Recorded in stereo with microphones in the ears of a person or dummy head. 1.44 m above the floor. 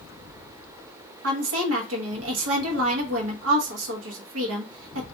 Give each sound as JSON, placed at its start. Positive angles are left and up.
{"t": 1.2, "sound": "a woman speaking", "side_deg": -85, "distance_m": 0.9}